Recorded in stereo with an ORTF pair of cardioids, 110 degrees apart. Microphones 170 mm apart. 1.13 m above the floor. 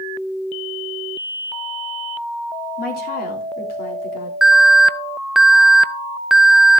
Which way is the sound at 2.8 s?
65° left.